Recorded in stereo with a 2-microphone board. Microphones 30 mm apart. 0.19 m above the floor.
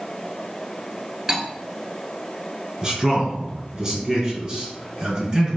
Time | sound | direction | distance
1.3 | cutlery clinking | 5° right (ahead or behind) | 1.3 m
2.8 | a man speaking | 25° right (ahead or behind) | 1.5 m